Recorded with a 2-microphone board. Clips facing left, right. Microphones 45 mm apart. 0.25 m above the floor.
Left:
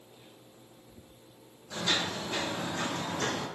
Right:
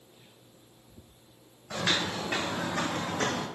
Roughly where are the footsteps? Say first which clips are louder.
Right 2 dB; right.